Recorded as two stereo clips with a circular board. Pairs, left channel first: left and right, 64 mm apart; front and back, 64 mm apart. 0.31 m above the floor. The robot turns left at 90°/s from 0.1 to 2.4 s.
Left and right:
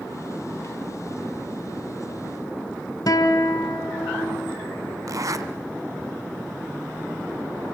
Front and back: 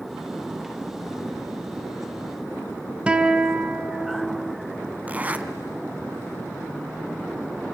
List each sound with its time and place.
3.1 s a guitar: 110° left, 1.0 m
5.1 s a zipper: 115° right, 1.0 m